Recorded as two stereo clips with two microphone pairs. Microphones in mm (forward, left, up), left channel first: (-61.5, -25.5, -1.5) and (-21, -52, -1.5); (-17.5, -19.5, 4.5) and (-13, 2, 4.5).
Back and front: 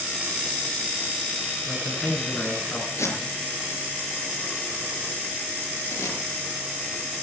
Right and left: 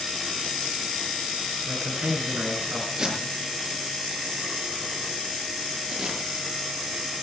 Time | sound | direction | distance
1.6 | a man speaking | 85° left | 9.5 m
3.0 | tape being pulled | 140° left | 6 m